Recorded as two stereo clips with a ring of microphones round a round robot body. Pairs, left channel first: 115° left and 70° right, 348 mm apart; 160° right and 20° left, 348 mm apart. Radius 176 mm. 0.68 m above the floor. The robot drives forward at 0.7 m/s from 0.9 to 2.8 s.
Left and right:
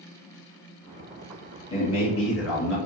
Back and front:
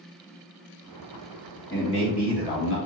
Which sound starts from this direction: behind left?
A man speaking, at 1.7 s.